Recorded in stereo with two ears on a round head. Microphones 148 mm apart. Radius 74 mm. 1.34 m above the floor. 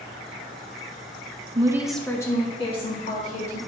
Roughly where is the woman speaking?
Right.